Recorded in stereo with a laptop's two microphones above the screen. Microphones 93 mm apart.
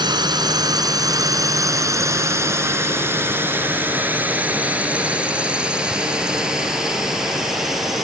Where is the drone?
50° right (ahead or behind); by 8.0 s centre (ahead or behind).